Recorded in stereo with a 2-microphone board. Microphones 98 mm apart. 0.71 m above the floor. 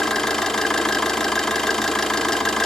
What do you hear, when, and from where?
0.0 s an engine running: 5° left (ahead or behind), 0.8 m